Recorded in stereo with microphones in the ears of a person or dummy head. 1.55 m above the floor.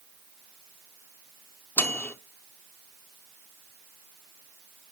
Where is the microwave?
10° left (ahead or behind), 0.7 m.